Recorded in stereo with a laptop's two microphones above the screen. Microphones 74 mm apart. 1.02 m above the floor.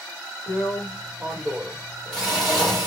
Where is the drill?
15° right (ahead or behind), 1.4 m.